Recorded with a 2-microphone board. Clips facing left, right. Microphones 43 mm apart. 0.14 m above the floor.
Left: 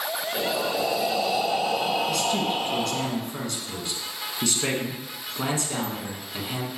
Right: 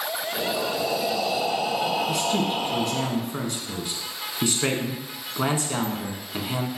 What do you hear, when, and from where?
0.3 s breathing: 20° left (ahead or behind), 2 m
2.1 s a man speaking: 20° right (ahead or behind), 1.2 m